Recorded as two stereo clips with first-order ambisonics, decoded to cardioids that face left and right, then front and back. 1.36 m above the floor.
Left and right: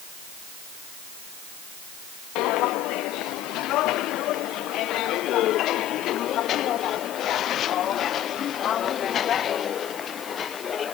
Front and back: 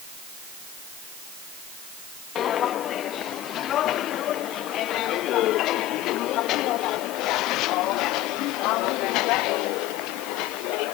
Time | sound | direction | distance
2.4 | footsteps | 55° left | ?